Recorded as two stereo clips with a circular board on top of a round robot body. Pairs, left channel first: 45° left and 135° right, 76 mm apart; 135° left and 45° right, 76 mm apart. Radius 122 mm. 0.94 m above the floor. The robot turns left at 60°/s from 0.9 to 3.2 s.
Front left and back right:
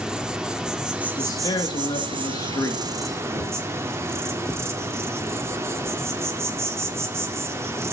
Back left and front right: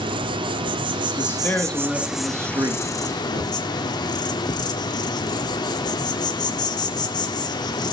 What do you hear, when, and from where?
0.0 s an insect: 55° right, 1.2 m; by 7.9 s 170° left, 1.2 m
1.2 s a man speaking: 90° left, 2.5 m; by 2.8 s 15° right, 2.5 m
3.3 s knocking: 70° right, 9.5 m